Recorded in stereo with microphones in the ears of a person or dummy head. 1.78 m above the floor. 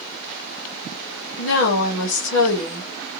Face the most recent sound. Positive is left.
turn(degrees=65)  # may be behind; listen again after turning